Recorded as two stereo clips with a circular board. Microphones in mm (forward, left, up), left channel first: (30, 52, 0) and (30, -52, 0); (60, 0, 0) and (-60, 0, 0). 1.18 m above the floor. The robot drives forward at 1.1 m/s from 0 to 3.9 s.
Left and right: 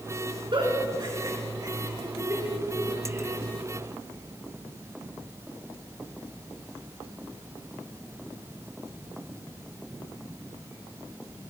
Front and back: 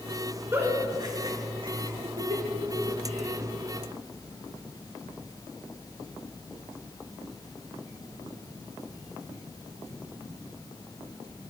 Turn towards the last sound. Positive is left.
turn(degrees=-160)